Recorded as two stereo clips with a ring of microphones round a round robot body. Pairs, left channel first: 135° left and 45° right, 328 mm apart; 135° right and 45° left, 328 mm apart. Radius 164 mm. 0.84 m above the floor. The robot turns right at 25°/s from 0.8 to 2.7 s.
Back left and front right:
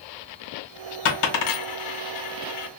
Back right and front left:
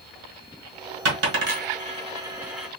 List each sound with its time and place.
1.1 s a dropped coin: 95° left, 1.5 m; by 2.7 s 135° left, 1.5 m